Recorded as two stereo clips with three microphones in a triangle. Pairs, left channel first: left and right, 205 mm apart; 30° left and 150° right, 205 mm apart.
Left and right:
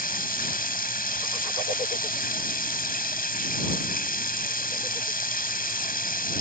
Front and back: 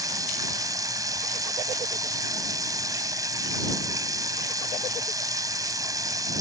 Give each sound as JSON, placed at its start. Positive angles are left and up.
{"t": 0.0, "sound": "running water", "azimuth_deg": 135}